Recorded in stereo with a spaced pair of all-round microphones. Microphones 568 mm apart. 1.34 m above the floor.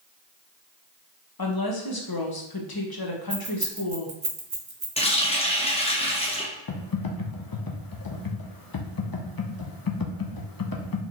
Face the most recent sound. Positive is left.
turn(degrees=40)  # may be behind; listen again after turning